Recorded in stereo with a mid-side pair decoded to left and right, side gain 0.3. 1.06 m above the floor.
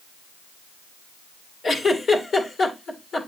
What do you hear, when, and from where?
1.6 s a giggle: 70° left, 2.5 m